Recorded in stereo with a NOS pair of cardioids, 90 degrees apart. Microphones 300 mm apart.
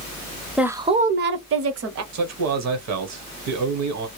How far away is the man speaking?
About 1.1 m.